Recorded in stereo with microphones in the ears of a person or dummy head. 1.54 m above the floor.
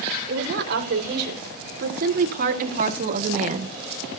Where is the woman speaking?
55° right (ahead or behind), 6 m; by 4.2 s 25° right (ahead or behind), 2 m.